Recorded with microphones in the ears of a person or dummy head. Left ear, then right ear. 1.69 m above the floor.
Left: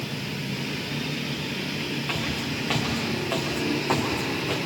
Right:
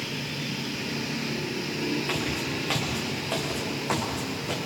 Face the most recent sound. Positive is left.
turn(degrees=-5)  # may be behind; listen again after turning